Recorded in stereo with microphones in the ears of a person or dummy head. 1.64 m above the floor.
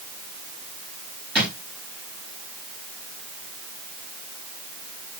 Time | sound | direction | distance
1.4 | a drawer | 5° right (ahead or behind) | 3.5 m